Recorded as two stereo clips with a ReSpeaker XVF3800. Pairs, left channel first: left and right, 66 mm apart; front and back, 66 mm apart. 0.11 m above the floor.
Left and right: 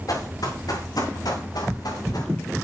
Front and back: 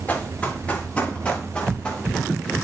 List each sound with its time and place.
0.1 s running footsteps: 65° left, 5 m; by 2.3 s 80° left, 4 m